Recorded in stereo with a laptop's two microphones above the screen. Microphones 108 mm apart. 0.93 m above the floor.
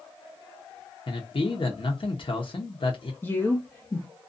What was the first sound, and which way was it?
A man speaking, 55° left (ahead or behind).